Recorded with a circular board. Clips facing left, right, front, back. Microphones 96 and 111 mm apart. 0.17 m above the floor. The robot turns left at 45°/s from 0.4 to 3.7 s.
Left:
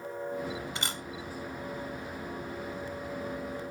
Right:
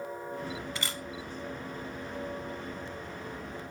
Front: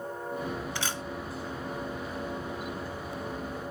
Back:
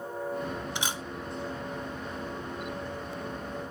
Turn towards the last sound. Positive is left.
turn(degrees=0)